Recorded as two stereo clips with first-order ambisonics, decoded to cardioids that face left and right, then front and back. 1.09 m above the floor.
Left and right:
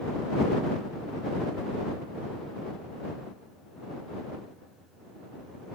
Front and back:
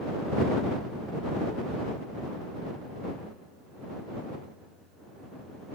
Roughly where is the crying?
No crying in this recording.